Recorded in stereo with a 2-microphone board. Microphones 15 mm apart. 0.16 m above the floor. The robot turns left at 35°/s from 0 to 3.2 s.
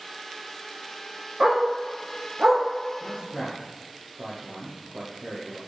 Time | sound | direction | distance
1.4 | a dog barking | 60° right (ahead or behind) | 4 m
3.0 | a man speaking | 70° right (ahead or behind) | 4 m